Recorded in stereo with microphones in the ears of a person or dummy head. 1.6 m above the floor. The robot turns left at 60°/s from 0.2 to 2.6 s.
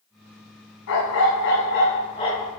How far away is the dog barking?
About 3.5 m.